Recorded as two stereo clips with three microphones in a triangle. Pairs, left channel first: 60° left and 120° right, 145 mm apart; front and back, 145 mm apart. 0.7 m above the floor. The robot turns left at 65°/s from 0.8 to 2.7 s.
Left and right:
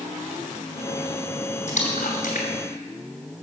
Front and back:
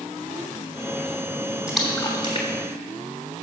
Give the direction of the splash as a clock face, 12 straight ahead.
9 o'clock.